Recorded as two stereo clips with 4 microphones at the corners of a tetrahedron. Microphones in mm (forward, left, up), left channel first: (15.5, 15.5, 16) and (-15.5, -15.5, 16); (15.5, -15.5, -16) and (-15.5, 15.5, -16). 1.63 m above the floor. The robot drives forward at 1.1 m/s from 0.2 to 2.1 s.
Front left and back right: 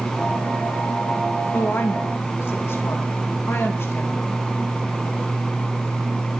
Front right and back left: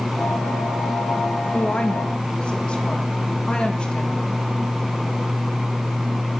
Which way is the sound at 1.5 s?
15° left.